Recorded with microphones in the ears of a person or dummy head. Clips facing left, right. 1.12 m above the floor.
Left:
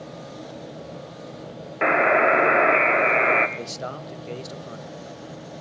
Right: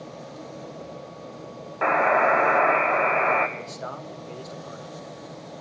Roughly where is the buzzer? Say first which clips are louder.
Left 2 dB; left.